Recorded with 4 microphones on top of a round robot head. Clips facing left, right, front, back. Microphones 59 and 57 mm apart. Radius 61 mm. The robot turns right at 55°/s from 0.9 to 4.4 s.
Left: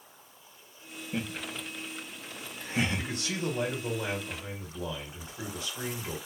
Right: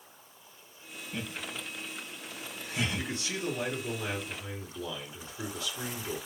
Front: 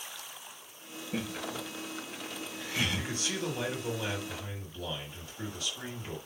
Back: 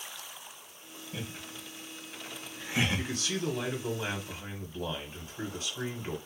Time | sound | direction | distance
1.1 | laughter | 30° left | 0.9 m
3.0 | a man speaking | 50° left | 2.0 m